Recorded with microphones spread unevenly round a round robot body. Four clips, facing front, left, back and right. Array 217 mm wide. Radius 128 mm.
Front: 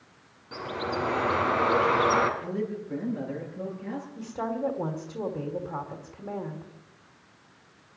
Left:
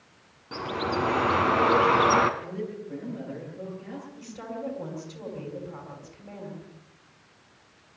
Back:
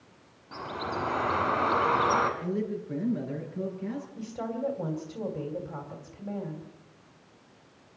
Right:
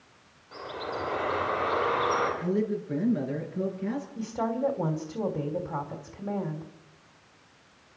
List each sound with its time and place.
0.5 s a bird: 105° left, 2.0 m
2.4 s a man speaking: 125° right, 8 m
4.2 s a woman speaking: 45° right, 3 m